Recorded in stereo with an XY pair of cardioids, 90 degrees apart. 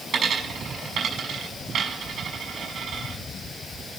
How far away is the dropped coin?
About 6 m.